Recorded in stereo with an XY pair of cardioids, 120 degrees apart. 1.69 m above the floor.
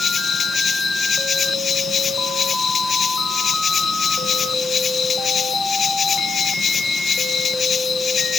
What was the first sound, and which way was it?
An insect, 40° left.